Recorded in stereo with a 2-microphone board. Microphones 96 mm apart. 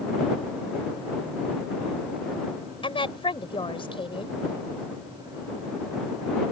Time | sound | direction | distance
2.8 | a woman speaking | 65° left (ahead or behind) | ?